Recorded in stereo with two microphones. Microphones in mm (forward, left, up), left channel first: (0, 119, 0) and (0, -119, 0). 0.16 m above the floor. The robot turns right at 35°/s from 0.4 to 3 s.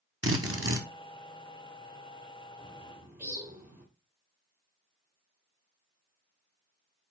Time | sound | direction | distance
0.2 | a drill | 70° right (ahead or behind) | 1.2 m
2.6 | a bird | 25° right (ahead or behind) | 1.9 m